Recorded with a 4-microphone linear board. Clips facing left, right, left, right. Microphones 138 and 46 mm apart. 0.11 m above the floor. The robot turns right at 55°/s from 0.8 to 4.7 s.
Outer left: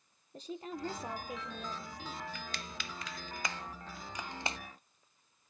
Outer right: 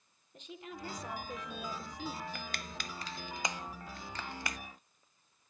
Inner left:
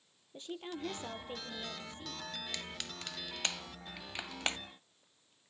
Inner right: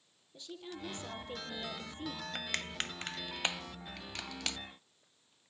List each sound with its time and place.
0.3 s a woman speaking: 140° left, 3 m; by 2.2 s 140° right, 3 m
2.4 s crushing: 55° right (ahead or behind), 0.5 m; by 4.6 s 30° left (ahead or behind), 0.5 m